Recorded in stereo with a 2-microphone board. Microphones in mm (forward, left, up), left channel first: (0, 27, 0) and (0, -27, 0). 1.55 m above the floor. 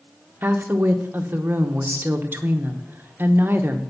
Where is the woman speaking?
40° right (ahead or behind), 0.9 m.